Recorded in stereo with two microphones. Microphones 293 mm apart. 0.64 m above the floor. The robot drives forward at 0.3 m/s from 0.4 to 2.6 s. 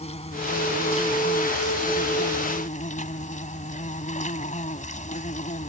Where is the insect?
20° left (ahead or behind); by 5.7 s 25° left (ahead or behind).